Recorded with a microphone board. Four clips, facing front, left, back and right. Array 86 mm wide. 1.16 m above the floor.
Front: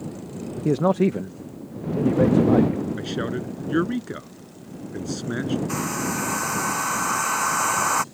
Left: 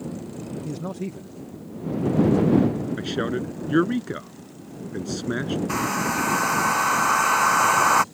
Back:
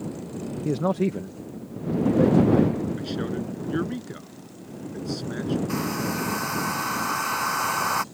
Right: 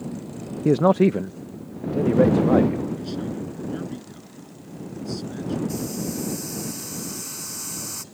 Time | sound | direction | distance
0.7 | a man speaking | 75° right | ?
3.0 | a man speaking | 65° left | ?
5.7 | a hair dryer | 80° left | ?